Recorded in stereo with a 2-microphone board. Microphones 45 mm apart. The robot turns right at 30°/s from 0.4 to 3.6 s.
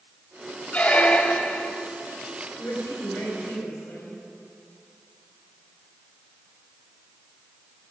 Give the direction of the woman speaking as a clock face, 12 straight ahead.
10 o'clock.